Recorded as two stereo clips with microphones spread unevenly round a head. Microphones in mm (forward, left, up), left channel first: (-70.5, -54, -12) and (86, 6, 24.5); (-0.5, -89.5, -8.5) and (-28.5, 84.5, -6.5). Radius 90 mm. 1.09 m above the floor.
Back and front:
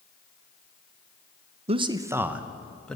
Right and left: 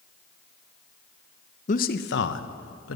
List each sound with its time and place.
1.7 s a man speaking: 35° right, 0.6 m; by 3.0 s 75° right, 1.2 m